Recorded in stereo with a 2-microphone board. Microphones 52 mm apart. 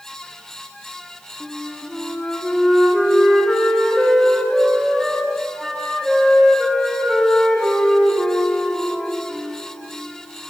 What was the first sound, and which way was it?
A flute, 5° left (ahead or behind).